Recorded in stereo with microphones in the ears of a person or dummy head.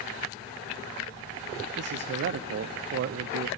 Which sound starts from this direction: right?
A man speaking, at 1.8 s.